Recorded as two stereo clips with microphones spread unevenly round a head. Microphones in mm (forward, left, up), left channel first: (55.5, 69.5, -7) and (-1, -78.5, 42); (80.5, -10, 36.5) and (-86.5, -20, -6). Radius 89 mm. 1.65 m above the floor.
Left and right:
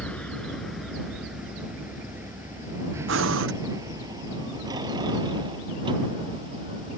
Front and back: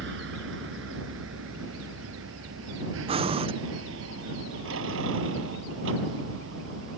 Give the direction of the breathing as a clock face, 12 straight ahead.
4 o'clock.